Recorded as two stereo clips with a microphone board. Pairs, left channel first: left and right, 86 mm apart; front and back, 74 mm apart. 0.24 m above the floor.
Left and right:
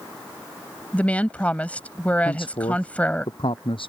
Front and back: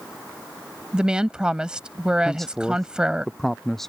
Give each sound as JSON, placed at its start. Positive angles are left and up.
{"t": 0.9, "sound": "a woman speaking", "azimuth_deg": 125}
{"t": 2.2, "sound": "a man speaking", "azimuth_deg": 85}